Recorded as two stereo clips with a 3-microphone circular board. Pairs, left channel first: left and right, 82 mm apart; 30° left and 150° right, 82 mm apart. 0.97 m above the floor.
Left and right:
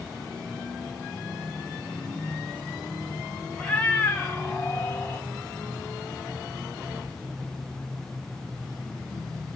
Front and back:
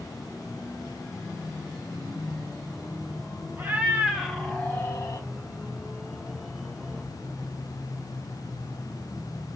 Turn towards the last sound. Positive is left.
turn(degrees=35)